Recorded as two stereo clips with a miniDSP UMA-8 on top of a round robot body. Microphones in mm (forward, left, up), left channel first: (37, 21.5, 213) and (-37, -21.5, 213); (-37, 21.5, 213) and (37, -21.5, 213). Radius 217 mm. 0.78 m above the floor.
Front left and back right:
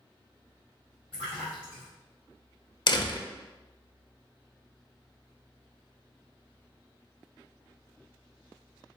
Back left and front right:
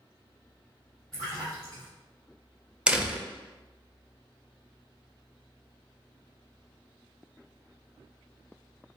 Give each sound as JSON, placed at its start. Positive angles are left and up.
{"t": 1.1, "sound": "a splash", "azimuth_deg": -115, "distance_m": 0.6}
{"t": 2.9, "sound": "a door slam", "azimuth_deg": 45, "distance_m": 0.6}